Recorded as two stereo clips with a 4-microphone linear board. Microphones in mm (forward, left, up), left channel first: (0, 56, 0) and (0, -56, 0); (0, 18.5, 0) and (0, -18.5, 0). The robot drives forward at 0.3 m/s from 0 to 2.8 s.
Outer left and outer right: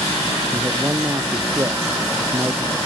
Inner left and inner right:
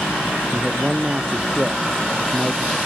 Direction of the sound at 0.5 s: 25° right (ahead or behind).